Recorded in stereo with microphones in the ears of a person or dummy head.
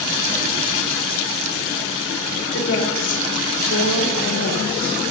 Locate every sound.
2.5 s a woman speaking: 65° left (ahead or behind), 3 m; by 5.1 s 60° left (ahead or behind), 2.5 m